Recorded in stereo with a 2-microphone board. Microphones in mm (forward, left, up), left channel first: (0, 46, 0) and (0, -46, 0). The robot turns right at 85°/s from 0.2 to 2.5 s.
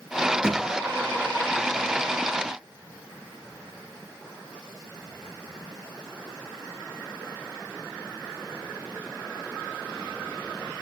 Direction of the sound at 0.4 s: 10° right (ahead or behind).